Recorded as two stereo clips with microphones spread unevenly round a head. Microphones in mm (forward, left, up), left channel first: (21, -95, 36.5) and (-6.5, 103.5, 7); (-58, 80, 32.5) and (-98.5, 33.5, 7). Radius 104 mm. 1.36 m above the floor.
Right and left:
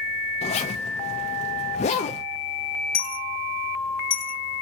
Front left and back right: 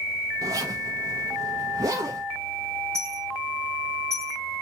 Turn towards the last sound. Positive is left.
turn(degrees=-45)